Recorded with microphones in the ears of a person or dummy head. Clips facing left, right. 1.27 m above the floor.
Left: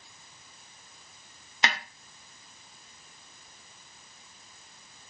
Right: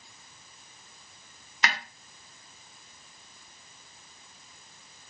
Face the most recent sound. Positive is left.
turn(degrees=20)  # may be behind; listen again after turning